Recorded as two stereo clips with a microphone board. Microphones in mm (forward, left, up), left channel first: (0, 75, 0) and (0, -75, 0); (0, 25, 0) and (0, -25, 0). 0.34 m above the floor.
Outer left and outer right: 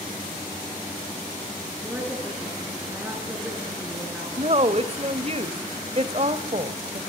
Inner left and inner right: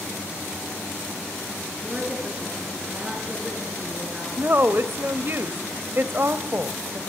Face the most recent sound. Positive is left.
turn(degrees=-45)  # may be behind; listen again after turning